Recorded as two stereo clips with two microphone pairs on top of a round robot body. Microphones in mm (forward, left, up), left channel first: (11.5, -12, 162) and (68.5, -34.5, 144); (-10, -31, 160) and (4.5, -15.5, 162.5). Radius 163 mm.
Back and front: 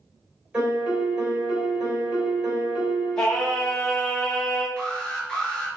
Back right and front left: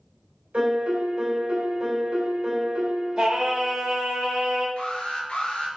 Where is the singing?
85° left, 0.8 m.